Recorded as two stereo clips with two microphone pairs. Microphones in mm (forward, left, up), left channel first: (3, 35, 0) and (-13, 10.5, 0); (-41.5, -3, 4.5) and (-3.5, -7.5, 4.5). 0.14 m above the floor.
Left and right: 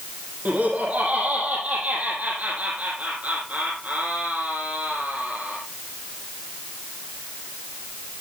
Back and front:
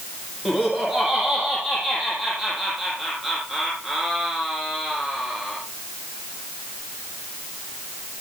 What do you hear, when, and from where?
0.5 s laughter: 90° right, 5 m